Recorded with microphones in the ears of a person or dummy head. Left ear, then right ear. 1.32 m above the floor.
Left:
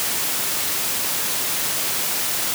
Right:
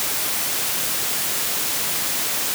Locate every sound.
Only background noise.